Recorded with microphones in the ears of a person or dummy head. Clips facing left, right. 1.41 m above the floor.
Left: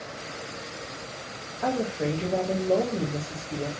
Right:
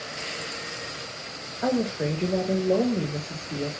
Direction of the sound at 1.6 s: 15° right (ahead or behind).